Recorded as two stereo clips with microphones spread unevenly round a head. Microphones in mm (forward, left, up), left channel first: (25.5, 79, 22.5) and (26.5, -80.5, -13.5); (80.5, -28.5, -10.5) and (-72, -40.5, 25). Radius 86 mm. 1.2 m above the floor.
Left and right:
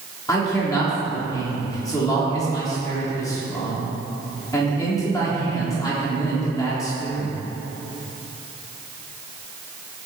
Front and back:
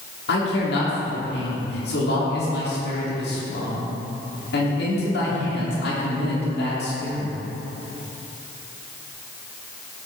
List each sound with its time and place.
0.3 s a man speaking: 20° left, 3.5 m